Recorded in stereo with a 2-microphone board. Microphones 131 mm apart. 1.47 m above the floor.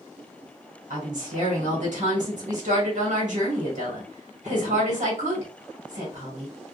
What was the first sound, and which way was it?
A woman speaking, 65° right (ahead or behind).